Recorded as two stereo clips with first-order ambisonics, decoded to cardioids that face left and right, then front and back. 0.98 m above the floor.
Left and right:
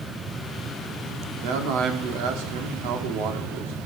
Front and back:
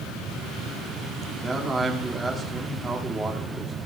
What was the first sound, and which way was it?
A man speaking, 100° right.